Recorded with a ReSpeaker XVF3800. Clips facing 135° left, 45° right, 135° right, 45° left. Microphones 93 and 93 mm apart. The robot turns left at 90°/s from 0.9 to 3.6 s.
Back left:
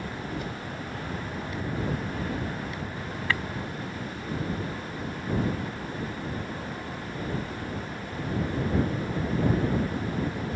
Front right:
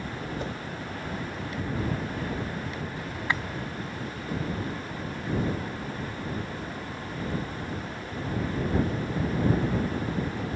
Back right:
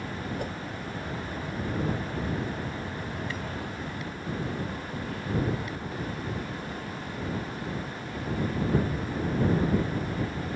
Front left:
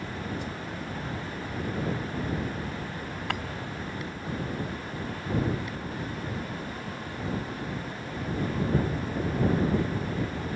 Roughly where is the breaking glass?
Ahead left.